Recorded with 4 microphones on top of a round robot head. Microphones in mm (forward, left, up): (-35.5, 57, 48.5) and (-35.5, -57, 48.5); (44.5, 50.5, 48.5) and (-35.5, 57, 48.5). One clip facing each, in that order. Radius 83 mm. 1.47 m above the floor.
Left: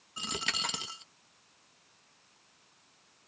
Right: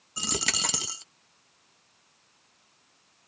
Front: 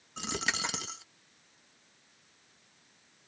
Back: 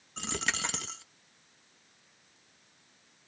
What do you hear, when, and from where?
0.2 s a dropped coin: 85° right